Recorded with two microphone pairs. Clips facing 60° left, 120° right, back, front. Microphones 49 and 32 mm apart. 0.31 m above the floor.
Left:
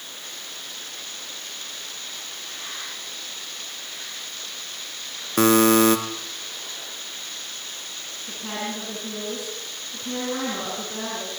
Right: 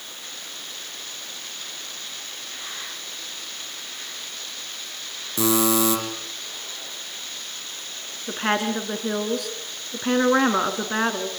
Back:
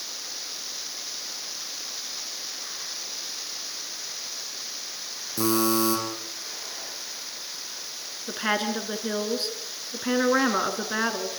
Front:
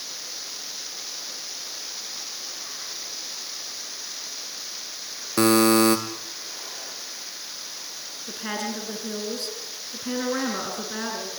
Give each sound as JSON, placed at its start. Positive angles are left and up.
{"t": 5.4, "sound": "a buzzer", "azimuth_deg": 25, "distance_m": 3.0}
{"t": 8.3, "sound": "a woman speaking", "azimuth_deg": -125, "distance_m": 4.0}